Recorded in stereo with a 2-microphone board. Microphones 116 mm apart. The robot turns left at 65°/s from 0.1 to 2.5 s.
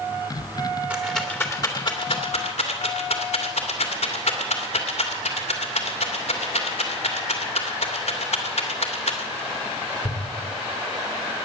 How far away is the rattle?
About 2.5 m.